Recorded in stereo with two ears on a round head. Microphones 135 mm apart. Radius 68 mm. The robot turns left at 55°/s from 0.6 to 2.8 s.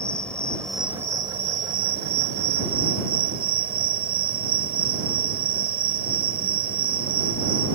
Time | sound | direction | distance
0.0 | an insect | 5° left | ?